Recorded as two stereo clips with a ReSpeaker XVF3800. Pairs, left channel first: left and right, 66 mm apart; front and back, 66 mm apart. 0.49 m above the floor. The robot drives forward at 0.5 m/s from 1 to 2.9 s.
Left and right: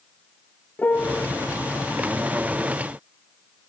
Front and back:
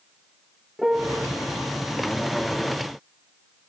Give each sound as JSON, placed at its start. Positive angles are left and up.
{"t": 0.8, "sound": "a piano", "azimuth_deg": 105}